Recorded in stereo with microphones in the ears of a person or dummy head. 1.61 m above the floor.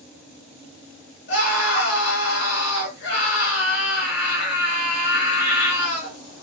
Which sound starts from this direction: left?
A scream, at 1.3 s.